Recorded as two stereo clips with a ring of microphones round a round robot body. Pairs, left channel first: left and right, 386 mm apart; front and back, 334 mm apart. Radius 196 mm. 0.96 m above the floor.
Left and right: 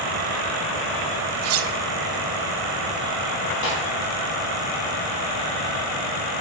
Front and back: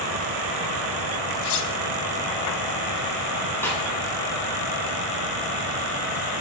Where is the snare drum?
85° left, 5.5 m.